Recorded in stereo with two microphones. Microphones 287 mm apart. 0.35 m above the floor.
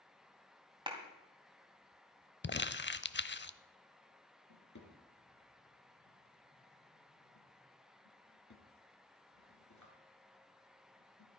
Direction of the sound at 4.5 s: 75° left (ahead or behind).